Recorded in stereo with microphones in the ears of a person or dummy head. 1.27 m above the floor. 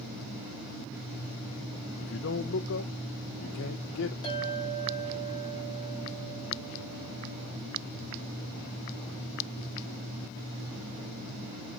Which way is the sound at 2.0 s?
70° left (ahead or behind).